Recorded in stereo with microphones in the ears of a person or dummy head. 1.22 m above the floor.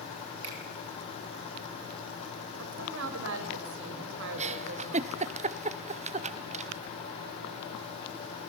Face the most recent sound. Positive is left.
turn(degrees=-35)  # may be behind; listen again after turning